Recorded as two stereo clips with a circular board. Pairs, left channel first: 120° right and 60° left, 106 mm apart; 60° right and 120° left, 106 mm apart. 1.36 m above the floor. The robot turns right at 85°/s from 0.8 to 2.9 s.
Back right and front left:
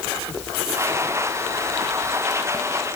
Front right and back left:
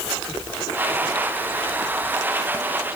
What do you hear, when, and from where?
Only background noise.